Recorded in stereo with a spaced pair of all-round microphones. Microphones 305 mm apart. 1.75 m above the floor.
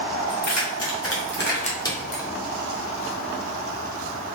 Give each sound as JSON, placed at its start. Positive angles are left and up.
{"t": 0.3, "sound": "keys jangling", "side_deg": 65, "distance_m": 1.5}